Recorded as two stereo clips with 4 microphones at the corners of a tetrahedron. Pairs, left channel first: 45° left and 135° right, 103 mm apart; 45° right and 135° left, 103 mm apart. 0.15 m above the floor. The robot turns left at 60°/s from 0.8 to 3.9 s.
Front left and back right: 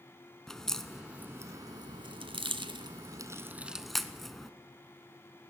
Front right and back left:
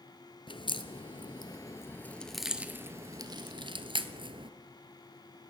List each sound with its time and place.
0.5 s a crack: 40° right, 1.4 m; by 4.5 s 135° left, 1.4 m